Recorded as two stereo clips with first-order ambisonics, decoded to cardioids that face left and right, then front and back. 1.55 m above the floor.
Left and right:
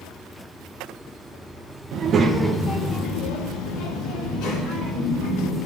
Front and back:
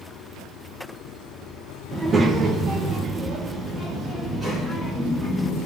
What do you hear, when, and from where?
1.9 s a child speaking: 110° right, 0.6 m; by 5.7 s 105° left, 2.5 m